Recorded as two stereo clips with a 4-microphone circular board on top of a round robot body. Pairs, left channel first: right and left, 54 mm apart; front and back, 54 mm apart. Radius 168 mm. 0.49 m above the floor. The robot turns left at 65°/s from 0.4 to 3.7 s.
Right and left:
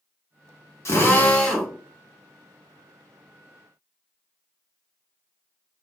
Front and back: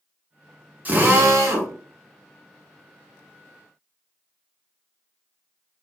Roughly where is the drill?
Behind right.